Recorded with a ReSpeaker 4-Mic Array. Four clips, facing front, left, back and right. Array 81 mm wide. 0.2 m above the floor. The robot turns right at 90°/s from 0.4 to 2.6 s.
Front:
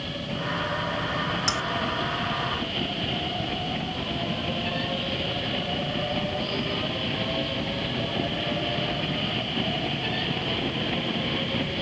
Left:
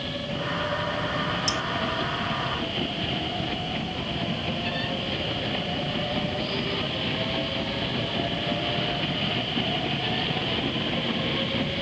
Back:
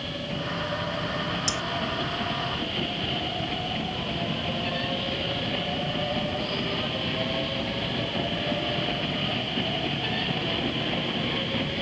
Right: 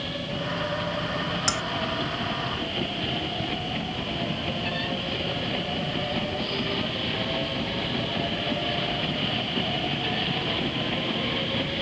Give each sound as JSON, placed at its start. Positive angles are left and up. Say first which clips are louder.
{"t": 1.5, "sound": "cutlery clinking", "louder": "even, front 3 dB", "azimuth_deg": -60}